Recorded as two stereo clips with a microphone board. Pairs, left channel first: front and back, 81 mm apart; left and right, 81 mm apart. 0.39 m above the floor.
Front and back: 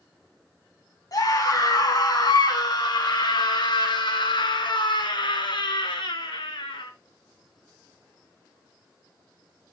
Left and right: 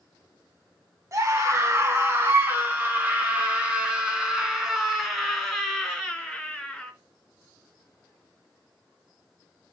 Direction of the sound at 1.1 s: 40° right.